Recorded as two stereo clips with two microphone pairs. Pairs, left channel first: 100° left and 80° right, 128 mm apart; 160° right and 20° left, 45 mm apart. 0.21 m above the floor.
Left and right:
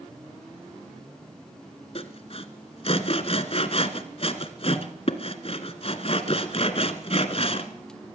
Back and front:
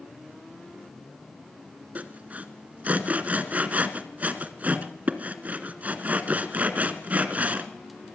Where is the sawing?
70° left, 1.6 m.